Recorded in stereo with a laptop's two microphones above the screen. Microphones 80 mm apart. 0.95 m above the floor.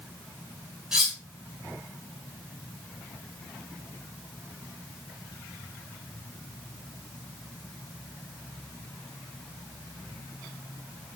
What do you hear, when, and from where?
0.9 s cutlery clinking: 5° right (ahead or behind), 0.7 m